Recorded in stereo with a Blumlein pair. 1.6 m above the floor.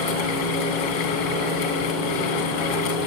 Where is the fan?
45° left, 3.5 m.